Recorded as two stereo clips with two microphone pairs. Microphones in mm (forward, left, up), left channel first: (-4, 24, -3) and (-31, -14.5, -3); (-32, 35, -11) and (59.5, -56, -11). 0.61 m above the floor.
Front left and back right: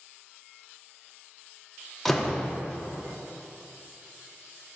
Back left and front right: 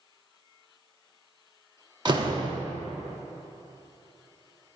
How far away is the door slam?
About 0.8 m.